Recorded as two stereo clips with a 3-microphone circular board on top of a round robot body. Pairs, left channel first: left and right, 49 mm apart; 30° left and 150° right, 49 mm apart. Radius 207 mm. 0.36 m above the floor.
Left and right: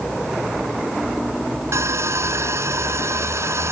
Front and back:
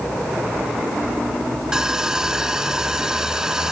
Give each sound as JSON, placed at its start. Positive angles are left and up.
{"t": 1.7, "sound": "sawing", "azimuth_deg": -70}